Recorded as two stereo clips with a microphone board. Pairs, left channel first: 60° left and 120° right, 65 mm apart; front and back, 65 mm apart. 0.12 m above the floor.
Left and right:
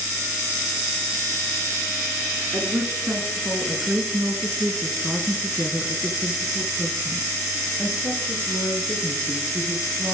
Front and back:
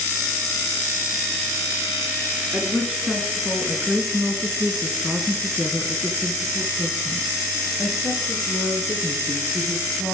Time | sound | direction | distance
2.5 | a woman speaking | 110° right | 2 m